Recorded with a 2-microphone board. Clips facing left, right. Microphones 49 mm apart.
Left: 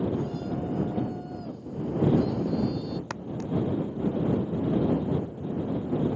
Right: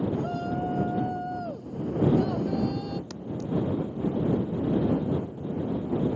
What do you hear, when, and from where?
0.1 s a shout: 50° right (ahead or behind)
3.1 s footsteps: 55° left (ahead or behind)